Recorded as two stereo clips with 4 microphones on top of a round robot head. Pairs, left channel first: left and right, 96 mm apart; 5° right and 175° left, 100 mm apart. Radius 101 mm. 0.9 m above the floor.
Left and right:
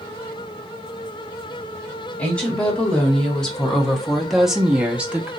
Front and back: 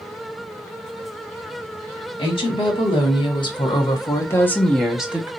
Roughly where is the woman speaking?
Ahead.